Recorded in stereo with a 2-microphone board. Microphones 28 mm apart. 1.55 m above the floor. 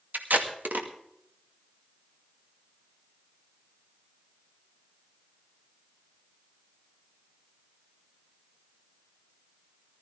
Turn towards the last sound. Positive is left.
turn(degrees=-80)